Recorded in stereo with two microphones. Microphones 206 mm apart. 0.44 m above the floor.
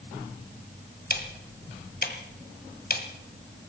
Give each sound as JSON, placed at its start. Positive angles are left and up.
{"t": 1.1, "sound": "ticking", "side_deg": 50, "distance_m": 1.7}